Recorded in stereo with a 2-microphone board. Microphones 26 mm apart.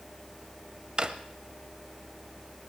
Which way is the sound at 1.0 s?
30° right (ahead or behind).